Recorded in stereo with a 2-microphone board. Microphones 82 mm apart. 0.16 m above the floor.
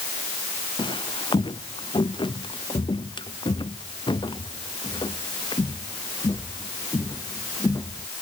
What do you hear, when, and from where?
0.8 s footsteps: 85° left; by 8.1 s 40° left (ahead or behind)